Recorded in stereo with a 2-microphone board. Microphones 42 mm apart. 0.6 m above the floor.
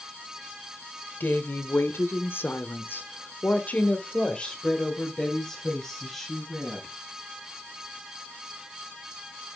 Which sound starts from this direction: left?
A woman speaking, at 1.2 s.